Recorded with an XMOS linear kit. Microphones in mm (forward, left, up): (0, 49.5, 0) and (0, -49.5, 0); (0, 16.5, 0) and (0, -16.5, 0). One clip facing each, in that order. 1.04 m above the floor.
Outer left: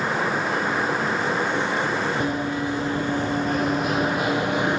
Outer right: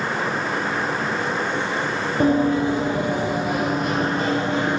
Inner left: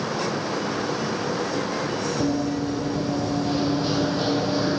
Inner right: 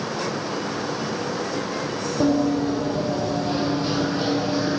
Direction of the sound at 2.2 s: 35° right (ahead or behind).